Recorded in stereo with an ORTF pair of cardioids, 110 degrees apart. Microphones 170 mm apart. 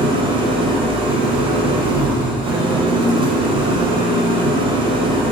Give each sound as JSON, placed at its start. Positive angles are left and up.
{"t": 0.0, "sound": "an engine running", "azimuth_deg": -30, "distance_m": 1.1}